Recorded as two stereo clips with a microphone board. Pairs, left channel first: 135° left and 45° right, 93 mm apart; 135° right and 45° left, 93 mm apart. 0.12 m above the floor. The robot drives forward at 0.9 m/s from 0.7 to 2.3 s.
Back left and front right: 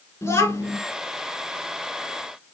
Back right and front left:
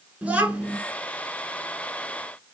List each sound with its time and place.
0.2 s a child speaking: 105° left, 1.1 m; by 0.8 s 110° left, 1.1 m